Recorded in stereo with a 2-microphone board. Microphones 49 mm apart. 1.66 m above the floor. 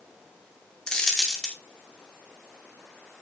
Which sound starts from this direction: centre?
A dropped coin, at 0.9 s.